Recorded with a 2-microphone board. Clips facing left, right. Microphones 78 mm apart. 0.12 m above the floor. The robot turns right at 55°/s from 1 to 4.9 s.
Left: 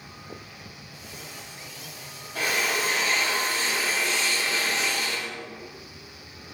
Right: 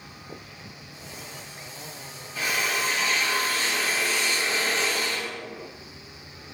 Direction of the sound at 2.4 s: 95° left.